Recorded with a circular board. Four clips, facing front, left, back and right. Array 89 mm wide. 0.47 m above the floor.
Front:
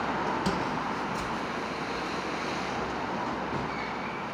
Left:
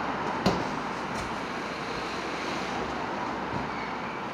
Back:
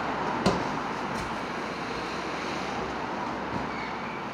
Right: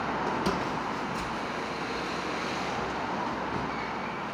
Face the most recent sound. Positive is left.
turn(degrees=110)